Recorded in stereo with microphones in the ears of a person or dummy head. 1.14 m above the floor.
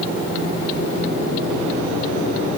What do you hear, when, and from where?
Only background noise.